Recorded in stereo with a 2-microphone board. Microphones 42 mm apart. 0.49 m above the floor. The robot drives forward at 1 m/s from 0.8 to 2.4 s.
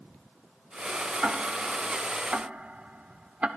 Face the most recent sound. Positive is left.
turn(degrees=-35)  # may be behind; listen again after turning